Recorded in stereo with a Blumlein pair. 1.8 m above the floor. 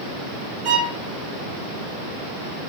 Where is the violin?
35° right, 0.7 m.